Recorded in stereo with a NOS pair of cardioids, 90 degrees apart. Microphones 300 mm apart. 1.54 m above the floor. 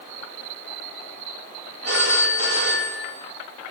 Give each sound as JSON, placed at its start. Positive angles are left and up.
{"t": 1.9, "sound": "a phone ringing", "azimuth_deg": -55, "distance_m": 6.0}